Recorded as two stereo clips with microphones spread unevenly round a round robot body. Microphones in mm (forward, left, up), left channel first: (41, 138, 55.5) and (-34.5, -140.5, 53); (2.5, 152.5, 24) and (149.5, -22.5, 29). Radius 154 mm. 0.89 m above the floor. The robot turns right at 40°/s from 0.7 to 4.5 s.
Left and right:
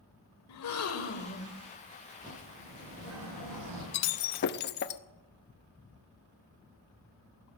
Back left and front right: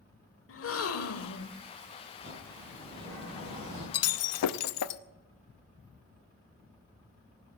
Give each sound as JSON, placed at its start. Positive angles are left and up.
{"t": 0.5, "sound": "a gasp", "azimuth_deg": 110, "distance_m": 1.2}
{"t": 2.2, "sound": "a bird", "azimuth_deg": 175, "distance_m": 7.5}
{"t": 3.9, "sound": "breaking glass", "azimuth_deg": 110, "distance_m": 0.7}